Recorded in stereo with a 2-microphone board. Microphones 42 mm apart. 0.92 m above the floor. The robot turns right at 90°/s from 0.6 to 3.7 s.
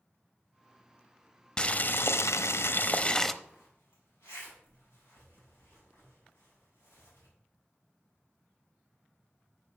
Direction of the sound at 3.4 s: 50° left (ahead or behind).